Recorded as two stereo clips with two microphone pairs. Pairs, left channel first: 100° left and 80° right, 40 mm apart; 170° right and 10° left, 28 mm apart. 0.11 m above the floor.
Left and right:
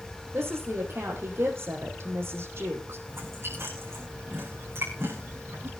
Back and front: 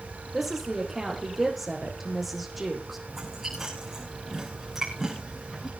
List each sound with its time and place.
0.3 s a woman speaking: 80° right, 4.5 m
3.1 s chewing: 65° right, 6 m